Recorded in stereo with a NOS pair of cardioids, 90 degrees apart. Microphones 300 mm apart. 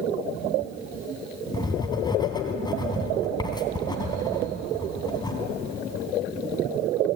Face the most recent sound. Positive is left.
turn(degrees=15)